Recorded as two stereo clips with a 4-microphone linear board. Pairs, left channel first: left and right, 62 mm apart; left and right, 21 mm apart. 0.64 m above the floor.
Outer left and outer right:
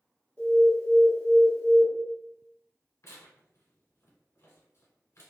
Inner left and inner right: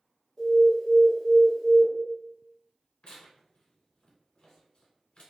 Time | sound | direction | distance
0.4 | an alarm | 20° left (ahead or behind) | 1.7 m
3.0 | tearing paper | 55° left (ahead or behind) | 1.1 m